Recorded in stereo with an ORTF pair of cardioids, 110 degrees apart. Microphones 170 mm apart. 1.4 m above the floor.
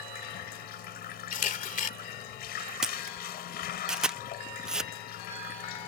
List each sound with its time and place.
0.0 s running water: 70° left
1.3 s a camera shutter: 55° left
2.8 s a camera shutter: 5° right